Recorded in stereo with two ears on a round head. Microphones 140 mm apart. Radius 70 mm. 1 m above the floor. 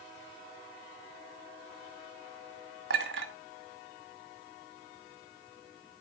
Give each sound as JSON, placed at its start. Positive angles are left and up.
{"t": 2.9, "sound": "a clink", "side_deg": -85, "distance_m": 1.6}